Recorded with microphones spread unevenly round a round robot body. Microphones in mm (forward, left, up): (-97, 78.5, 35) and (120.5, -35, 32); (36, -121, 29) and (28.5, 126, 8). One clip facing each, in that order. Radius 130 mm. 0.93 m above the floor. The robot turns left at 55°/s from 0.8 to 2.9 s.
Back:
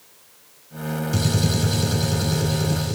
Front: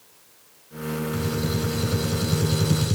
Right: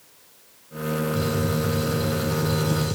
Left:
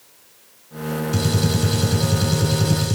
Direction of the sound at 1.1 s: 125° left.